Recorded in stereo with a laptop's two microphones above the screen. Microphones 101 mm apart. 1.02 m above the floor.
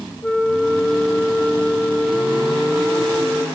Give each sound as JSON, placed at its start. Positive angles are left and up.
{"t": 0.2, "sound": "a flute", "side_deg": 15, "distance_m": 1.1}